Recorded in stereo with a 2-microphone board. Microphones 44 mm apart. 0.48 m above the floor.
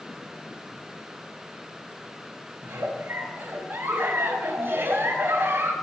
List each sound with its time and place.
2.6 s a giggle: 55° right (ahead or behind), 2.0 m